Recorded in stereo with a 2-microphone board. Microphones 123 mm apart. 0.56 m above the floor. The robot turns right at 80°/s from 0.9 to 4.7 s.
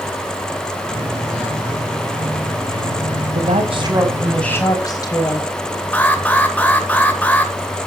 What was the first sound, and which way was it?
A woman speaking, 75° right.